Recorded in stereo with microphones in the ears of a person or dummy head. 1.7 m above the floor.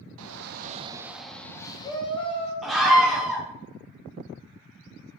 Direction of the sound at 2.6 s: 5° right (ahead or behind).